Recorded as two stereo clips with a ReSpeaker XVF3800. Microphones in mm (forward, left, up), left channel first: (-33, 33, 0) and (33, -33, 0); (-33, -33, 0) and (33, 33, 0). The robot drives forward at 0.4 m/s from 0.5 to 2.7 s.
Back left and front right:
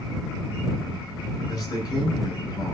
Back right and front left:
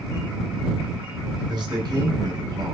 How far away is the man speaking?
About 7.5 m.